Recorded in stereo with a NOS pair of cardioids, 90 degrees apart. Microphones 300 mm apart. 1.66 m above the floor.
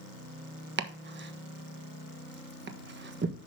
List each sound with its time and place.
0.8 s chopping: 35° right, 1.4 m